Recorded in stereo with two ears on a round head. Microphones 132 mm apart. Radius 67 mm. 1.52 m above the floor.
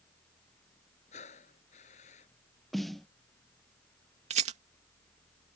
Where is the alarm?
I don't hear an alarm.